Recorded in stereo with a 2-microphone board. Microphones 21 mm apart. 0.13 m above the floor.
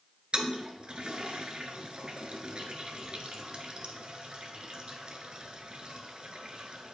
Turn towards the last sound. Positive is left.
turn(degrees=-50)  # may be behind; listen again after turning